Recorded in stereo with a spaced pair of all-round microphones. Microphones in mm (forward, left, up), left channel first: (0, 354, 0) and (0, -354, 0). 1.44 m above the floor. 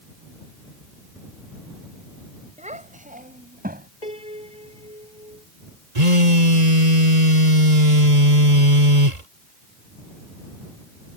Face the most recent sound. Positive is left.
turn(degrees=-65)  # may be behind; listen again after turning